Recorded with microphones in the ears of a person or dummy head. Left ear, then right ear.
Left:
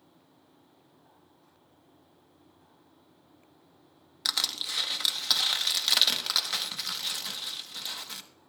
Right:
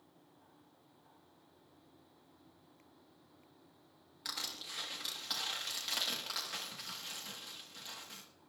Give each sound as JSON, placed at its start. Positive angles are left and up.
{"t": 4.2, "sound": "crushing", "side_deg": 40, "distance_m": 1.2}